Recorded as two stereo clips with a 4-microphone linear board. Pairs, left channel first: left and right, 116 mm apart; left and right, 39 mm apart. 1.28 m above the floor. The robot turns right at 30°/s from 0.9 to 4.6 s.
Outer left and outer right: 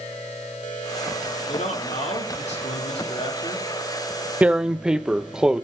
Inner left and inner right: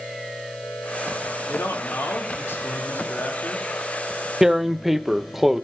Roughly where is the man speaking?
Left.